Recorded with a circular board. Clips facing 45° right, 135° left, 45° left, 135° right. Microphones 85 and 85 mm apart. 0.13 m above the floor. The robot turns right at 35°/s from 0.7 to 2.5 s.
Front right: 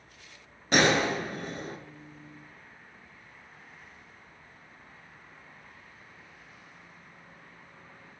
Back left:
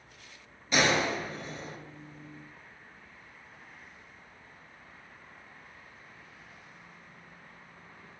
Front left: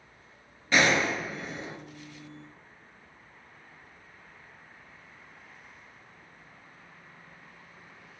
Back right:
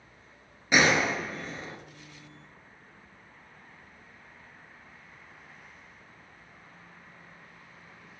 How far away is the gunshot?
About 0.7 m.